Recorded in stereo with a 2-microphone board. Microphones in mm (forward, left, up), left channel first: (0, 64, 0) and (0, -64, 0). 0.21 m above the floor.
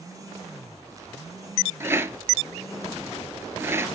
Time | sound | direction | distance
1.8 | a rattle | 20° right (ahead or behind) | 0.8 m